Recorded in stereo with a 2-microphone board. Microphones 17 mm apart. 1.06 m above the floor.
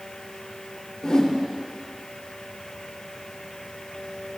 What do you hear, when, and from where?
1.0 s a whoosh: 70° left (ahead or behind), 2.5 m